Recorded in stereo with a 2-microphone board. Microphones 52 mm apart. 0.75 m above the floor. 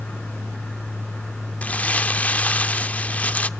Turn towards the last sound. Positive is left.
turn(degrees=25)  # may be behind; listen again after turning